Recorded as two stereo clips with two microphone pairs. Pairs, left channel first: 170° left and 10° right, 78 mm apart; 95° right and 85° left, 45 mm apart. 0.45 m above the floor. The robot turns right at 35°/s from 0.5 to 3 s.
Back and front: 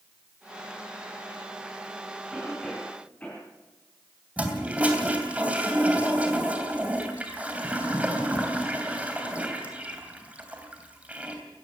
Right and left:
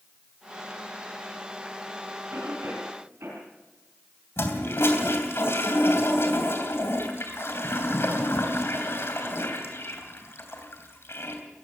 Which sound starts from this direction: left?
A cough, at 2.3 s.